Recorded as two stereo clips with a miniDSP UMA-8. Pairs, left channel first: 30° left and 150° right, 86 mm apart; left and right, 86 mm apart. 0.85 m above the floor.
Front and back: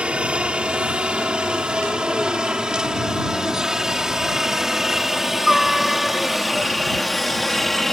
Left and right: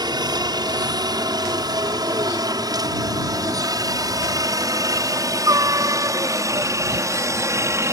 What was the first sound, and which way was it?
A helicopter, 75° right.